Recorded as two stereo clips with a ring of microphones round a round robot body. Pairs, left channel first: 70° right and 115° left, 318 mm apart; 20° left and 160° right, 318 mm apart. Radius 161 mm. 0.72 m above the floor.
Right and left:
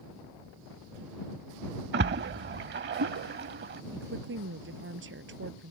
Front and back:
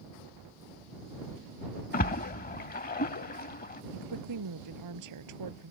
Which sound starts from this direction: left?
A splash, at 1.9 s.